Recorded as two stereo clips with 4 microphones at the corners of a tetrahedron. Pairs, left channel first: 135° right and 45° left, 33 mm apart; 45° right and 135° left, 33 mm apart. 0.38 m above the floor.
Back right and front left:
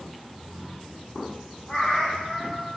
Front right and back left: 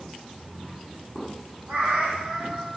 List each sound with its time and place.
1.7 s a cat meowing: 170° left, 4.5 m